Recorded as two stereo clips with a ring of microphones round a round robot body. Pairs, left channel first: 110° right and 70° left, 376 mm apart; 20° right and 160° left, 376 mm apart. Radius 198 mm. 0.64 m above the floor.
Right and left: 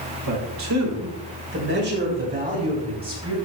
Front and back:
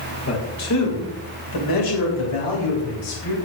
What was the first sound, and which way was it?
A man speaking, 30° left.